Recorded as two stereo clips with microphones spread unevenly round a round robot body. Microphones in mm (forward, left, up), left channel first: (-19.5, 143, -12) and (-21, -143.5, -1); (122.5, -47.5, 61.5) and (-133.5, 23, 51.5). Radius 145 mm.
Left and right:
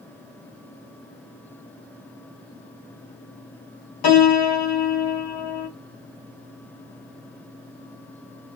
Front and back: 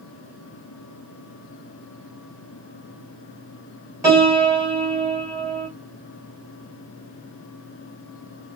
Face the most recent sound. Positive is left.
turn(degrees=85)